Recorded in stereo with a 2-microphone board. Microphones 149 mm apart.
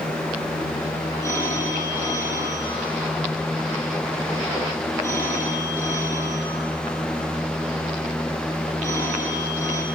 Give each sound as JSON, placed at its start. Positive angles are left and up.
{"t": 1.2, "sound": "a phone ringing", "side_deg": 15, "distance_m": 9.0}